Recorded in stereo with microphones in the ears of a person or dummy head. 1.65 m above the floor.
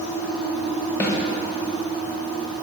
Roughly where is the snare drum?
Centre.